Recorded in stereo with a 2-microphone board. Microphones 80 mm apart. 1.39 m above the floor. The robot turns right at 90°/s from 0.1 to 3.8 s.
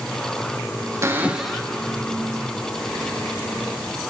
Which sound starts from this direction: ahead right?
A cupboard door, at 1.0 s.